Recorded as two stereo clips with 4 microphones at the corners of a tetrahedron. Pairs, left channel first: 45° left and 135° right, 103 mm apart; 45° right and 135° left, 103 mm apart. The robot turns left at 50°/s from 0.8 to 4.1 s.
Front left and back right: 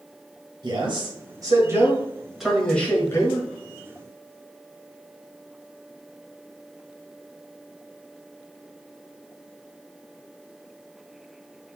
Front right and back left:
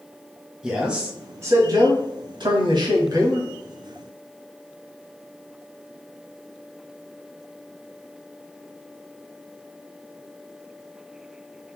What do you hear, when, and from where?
0.6 s a man speaking: 145° right, 1.3 m; by 3.5 s 80° left, 1.3 m